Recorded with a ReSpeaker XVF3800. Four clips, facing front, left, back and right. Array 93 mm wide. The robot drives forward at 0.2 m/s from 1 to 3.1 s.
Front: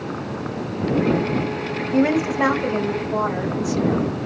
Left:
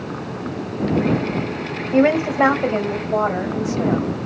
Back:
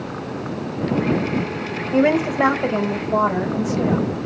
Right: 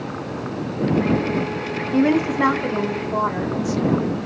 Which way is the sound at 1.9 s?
125° left.